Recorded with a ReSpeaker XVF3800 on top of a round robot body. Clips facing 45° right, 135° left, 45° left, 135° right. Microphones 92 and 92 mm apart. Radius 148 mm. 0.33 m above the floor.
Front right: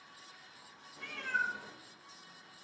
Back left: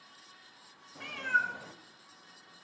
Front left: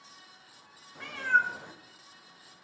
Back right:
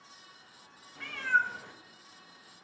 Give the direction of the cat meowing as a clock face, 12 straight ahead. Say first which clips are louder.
Back left 5 dB, front left 2 dB; 8 o'clock.